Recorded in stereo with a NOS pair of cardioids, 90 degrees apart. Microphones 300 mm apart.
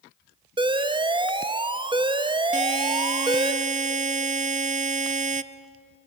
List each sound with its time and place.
0.6 s an alarm: 15° right, 1.3 m
2.5 s a buzzer: 25° right, 0.9 m